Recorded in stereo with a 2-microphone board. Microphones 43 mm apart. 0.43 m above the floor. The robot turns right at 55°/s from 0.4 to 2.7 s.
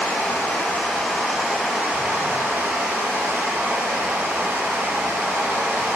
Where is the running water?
140° left, 1.3 m; by 6.0 s 95° right, 1.3 m.